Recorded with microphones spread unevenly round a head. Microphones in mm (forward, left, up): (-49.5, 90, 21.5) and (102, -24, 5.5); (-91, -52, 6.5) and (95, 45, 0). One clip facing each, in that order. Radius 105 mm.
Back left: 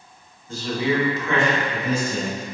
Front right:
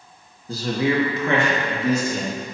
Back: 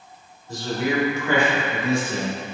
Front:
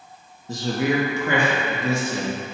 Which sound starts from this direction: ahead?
A man speaking, at 0.5 s.